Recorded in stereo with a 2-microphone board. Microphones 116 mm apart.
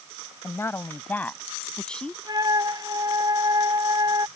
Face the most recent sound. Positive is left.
turn(degrees=-35)  # may be behind; listen again after turning